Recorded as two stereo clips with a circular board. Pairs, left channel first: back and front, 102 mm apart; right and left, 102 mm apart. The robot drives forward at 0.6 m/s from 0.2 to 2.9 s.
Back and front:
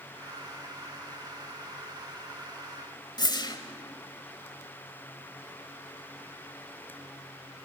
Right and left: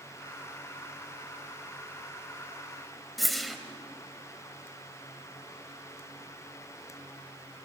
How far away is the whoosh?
About 1.1 m.